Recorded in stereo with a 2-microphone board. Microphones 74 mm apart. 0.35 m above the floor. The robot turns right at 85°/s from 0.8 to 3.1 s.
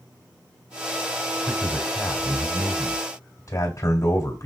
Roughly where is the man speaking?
Ahead right.